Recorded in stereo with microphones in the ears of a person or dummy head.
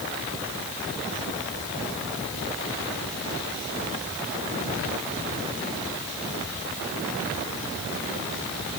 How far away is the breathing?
No breathing in this recording.